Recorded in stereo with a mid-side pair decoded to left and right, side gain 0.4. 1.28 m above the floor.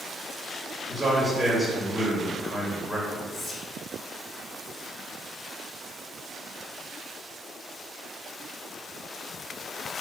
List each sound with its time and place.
0.9 s a man speaking: 10° right, 1.9 m
3.3 s whispering: 35° left, 1.4 m